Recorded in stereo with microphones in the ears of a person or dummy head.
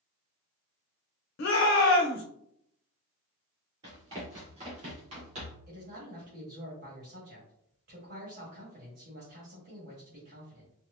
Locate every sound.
1.4 s a shout: 60° left (ahead or behind), 0.7 m
3.8 s running footsteps: 20° right (ahead or behind), 1.7 m; by 5.6 s 35° right (ahead or behind), 2.5 m
5.7 s a man speaking: 50° right (ahead or behind), 1.9 m